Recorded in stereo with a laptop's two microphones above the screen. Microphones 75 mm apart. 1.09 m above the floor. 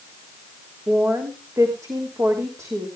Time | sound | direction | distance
0.9 | a woman speaking | 45° right (ahead or behind) | 3 m